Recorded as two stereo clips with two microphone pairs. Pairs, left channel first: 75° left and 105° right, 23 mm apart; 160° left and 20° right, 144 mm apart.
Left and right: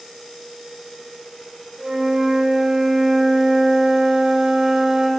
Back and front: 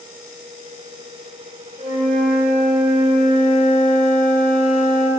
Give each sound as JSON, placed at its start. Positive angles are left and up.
{"t": 1.8, "sound": "a flute", "azimuth_deg": -60, "distance_m": 7.0}